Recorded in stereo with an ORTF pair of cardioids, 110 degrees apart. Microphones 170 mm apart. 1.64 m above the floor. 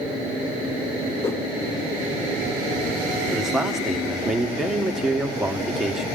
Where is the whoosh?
15° left, 0.7 m.